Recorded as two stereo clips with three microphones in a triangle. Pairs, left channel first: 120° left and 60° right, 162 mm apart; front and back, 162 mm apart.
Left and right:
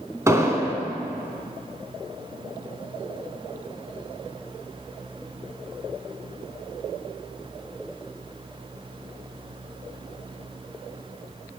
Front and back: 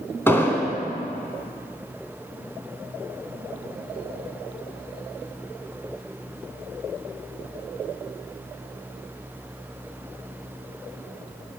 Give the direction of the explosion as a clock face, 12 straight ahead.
1 o'clock.